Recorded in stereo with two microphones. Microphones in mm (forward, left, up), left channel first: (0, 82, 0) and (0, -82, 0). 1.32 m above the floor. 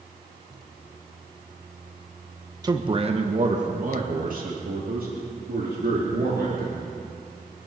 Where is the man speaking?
25° right (ahead or behind), 1.2 m; by 6.8 s 75° right (ahead or behind), 4 m.